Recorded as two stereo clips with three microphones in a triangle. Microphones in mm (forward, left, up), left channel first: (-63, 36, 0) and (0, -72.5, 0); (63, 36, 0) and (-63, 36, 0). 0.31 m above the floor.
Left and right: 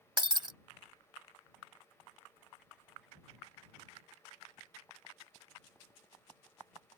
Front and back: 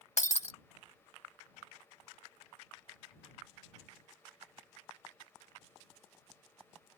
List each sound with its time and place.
0.2 s breaking glass: 10° right